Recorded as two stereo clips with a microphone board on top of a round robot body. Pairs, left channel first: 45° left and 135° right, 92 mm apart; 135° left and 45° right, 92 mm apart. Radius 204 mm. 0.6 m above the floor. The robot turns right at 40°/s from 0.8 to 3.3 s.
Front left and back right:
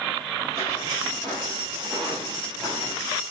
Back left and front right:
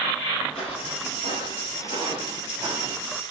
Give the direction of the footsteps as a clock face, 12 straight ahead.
8 o'clock.